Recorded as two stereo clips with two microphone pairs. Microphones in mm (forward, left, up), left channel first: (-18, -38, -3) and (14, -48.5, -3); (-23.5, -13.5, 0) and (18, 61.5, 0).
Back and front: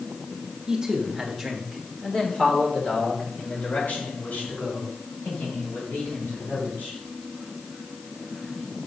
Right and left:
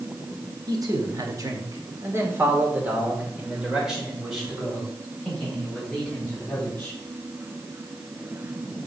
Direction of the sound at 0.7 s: 45° left.